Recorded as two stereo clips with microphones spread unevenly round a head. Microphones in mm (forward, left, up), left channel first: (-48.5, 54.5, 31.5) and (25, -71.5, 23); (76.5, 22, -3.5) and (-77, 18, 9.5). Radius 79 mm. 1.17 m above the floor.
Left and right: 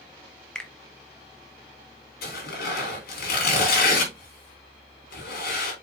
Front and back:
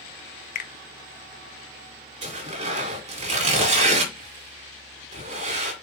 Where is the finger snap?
35° left, 1.0 m.